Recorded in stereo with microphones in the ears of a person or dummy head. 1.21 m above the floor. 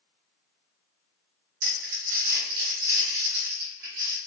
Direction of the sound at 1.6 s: 55° right (ahead or behind).